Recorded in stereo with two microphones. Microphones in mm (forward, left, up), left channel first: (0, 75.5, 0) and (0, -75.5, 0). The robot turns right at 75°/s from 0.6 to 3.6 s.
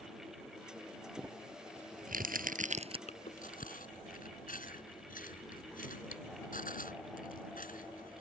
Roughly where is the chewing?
Left.